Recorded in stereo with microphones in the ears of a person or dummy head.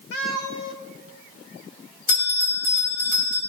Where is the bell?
60° left (ahead or behind), 5 m.